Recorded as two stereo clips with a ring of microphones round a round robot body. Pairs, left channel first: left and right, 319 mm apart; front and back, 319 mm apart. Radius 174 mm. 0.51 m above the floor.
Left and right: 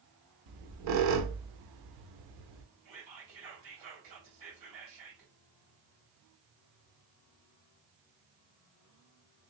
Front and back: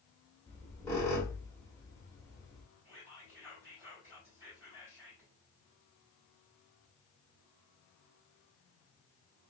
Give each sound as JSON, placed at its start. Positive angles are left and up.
{"t": 0.5, "sound": "a squeak", "azimuth_deg": -80, "distance_m": 0.7}
{"t": 2.9, "sound": "whispering", "azimuth_deg": -100, "distance_m": 2.5}